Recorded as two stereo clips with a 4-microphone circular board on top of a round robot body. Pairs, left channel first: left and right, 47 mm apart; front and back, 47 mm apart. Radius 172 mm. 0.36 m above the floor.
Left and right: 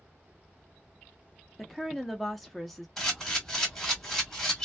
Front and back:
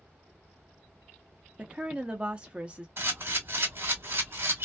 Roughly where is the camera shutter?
Behind.